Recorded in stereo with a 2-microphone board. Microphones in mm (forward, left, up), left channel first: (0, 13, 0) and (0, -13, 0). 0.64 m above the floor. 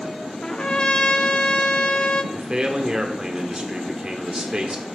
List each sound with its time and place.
0.4 s a trumpet: 35° left (ahead or behind), 0.6 m
2.3 s a man speaking: 30° right (ahead or behind), 1.5 m